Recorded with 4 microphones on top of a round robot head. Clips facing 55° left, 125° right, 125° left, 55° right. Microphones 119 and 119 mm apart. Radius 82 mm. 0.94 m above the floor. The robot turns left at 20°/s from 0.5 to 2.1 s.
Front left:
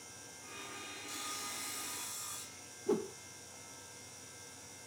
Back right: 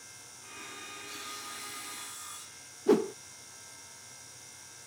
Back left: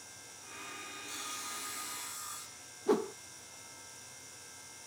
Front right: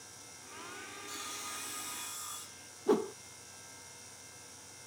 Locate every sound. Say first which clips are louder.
1.1 s sawing: front left 1 dB, back left 1 dB; 40° left; by 2.7 s 20° left
2.9 s a whoosh: back right 9 dB, front right 1 dB; 140° right